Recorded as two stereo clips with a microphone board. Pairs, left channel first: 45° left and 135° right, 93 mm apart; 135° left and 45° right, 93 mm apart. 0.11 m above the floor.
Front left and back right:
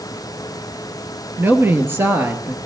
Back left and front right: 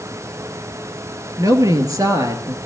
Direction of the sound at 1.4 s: 80° right.